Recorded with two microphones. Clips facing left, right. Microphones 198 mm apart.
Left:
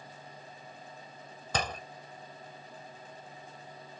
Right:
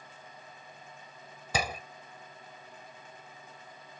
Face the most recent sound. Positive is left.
turn(degrees=-10)  # may be behind; listen again after turning